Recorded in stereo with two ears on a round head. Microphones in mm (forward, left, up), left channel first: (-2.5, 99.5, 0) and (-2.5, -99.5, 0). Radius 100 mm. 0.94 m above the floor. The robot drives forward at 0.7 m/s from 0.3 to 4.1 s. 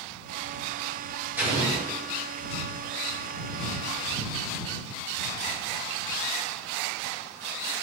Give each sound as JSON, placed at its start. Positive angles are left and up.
{"t": 1.4, "sound": "an explosion", "side_deg": -10, "distance_m": 4.0}